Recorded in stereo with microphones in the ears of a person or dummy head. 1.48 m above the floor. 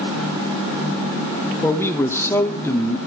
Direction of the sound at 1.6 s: 15° left (ahead or behind).